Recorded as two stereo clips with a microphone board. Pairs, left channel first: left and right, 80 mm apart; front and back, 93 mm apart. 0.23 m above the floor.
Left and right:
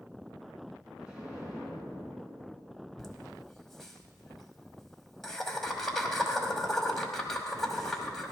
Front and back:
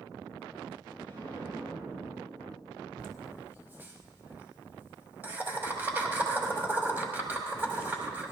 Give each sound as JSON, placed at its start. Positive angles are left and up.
{"t": 1.0, "sound": "an explosion", "azimuth_deg": -165, "distance_m": 3.0}
{"t": 3.0, "sound": "laughter", "azimuth_deg": 170, "distance_m": 1.0}